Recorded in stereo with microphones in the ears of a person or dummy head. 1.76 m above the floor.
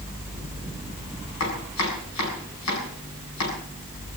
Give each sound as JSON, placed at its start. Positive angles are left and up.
{"t": 1.4, "sound": "chopping", "side_deg": 75, "distance_m": 6.5}